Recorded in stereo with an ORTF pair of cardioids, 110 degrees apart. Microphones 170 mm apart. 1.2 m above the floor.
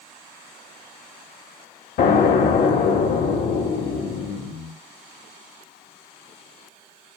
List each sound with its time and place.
2.0 s an explosion: 70° left, 2.5 m